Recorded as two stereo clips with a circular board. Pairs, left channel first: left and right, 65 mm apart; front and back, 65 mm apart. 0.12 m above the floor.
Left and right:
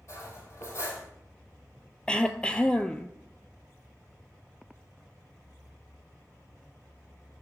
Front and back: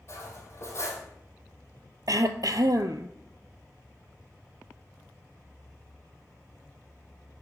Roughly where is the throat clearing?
Behind.